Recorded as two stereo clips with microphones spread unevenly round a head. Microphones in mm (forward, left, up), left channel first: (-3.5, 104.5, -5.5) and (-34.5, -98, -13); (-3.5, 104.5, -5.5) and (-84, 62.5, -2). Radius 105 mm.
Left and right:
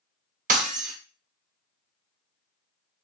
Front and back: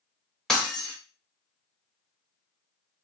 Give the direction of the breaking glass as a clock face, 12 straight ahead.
2 o'clock.